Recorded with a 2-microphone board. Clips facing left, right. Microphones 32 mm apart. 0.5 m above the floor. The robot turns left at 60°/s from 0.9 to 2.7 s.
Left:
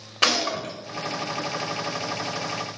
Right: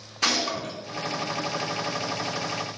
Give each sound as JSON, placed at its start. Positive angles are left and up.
{"t": 0.2, "sound": "a gunshot", "side_deg": 70, "distance_m": 1.3}